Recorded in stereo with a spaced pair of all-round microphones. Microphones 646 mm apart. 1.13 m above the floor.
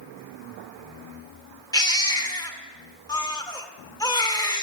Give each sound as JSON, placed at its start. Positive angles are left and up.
{"t": 1.7, "sound": "a baby crying", "side_deg": 5, "distance_m": 1.0}